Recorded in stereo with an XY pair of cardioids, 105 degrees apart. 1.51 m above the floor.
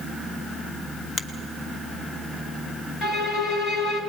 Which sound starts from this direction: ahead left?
A finger snap, at 1.2 s.